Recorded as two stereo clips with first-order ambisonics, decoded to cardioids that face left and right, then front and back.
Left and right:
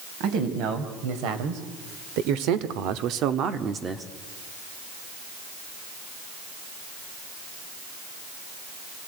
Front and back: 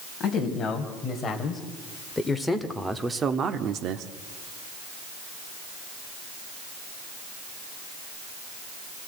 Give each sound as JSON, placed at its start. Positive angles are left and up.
{"t": 0.2, "sound": "a man speaking", "azimuth_deg": -65, "distance_m": 3.0}